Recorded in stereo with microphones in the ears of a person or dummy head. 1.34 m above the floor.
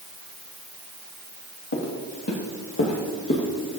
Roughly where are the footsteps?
Left.